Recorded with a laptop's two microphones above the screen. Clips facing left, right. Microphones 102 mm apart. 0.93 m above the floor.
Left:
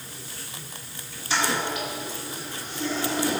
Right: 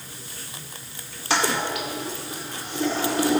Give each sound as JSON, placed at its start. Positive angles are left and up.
{"t": 1.3, "sound": "a toilet flushing", "side_deg": -80, "distance_m": 2.0}